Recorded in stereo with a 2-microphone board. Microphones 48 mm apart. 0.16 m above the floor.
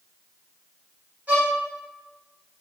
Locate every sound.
1.3 s a violin: 30° right (ahead or behind), 4.5 m